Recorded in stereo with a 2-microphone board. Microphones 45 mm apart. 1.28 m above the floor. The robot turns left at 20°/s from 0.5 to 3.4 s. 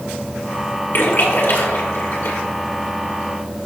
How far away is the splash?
About 2.0 m.